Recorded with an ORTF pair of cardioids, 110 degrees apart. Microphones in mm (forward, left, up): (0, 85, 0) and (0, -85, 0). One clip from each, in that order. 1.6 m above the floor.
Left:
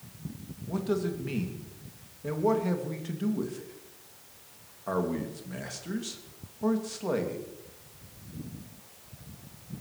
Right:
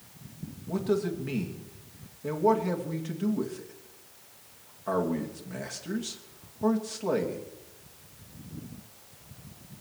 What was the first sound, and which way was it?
A man speaking, straight ahead.